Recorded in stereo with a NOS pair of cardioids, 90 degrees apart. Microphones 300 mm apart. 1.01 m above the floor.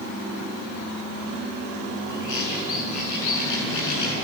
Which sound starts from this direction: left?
A bird, at 2.1 s.